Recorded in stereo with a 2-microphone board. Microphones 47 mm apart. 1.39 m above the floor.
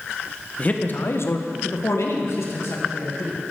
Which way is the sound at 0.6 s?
30° left (ahead or behind).